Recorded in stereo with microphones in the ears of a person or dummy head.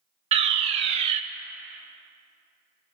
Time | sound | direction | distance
0.3 | a fire alarm | 30° right (ahead or behind) | 0.5 m